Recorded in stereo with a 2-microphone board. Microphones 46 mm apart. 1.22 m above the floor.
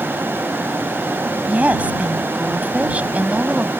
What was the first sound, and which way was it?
A woman speaking, 35° right (ahead or behind).